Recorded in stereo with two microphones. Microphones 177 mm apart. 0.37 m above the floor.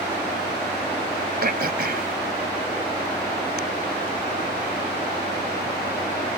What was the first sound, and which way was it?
Throat clearing, 65° right (ahead or behind).